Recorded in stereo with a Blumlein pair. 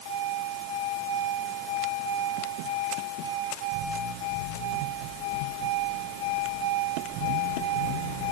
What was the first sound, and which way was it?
Only background noise.